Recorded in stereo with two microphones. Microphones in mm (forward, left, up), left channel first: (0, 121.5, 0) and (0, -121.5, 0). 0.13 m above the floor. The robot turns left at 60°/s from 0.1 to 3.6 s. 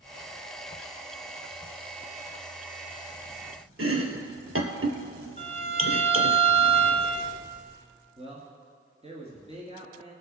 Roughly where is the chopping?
Right.